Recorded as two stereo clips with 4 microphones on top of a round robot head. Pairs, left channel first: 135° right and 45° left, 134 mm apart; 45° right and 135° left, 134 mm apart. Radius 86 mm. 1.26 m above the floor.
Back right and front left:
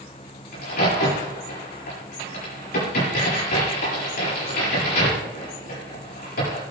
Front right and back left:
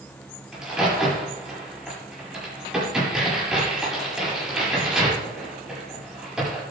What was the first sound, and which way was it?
A crack, 140° right.